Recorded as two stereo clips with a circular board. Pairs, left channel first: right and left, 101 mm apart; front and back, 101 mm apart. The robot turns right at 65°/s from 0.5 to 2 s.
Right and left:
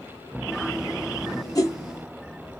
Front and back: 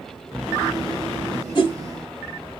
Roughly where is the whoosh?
Ahead right.